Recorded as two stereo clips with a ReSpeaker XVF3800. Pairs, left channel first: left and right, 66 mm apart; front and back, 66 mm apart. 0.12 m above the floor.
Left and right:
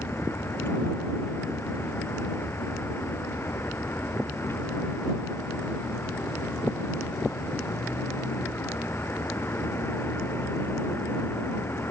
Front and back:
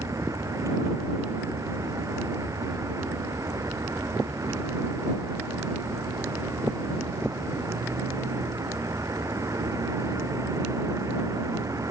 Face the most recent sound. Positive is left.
turn(degrees=145)